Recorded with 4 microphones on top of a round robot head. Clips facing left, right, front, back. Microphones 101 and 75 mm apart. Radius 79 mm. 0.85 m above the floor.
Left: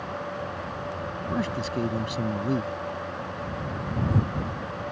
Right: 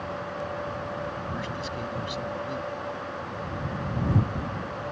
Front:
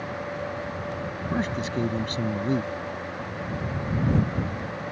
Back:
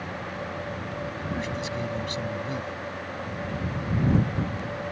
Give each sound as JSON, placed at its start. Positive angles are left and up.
{"t": 1.3, "sound": "a man speaking", "azimuth_deg": 45}